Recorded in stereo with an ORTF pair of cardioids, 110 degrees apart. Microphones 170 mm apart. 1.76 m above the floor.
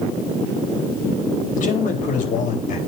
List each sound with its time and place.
1.6 s a man speaking: 55° left, 3.5 m